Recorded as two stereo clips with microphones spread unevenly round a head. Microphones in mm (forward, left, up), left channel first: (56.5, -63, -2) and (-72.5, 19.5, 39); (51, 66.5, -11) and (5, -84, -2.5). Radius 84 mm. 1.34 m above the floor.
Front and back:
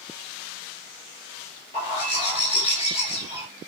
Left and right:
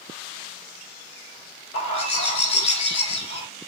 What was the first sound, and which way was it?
A bird, 25° left.